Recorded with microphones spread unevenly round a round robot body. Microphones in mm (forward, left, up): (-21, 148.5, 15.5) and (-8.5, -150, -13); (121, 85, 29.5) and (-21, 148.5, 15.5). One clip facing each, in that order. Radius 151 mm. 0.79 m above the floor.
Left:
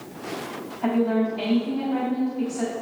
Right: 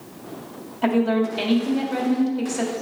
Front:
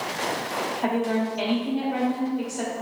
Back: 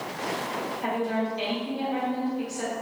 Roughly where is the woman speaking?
Right.